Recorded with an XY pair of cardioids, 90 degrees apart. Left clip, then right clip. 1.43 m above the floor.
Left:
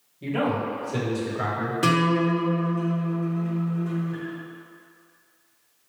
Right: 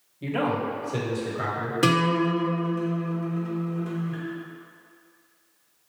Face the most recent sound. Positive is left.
turn(degrees=-35)